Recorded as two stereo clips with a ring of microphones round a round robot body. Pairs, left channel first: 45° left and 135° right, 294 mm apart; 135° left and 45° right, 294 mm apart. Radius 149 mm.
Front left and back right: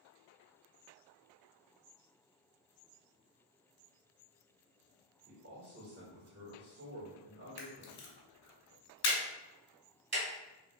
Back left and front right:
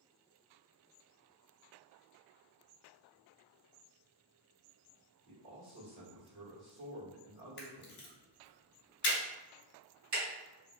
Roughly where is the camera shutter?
Left.